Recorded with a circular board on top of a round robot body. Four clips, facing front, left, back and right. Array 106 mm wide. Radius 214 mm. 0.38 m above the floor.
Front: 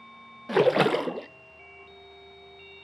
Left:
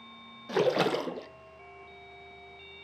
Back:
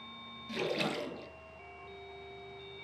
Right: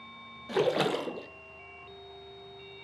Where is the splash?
5° left, 0.7 m.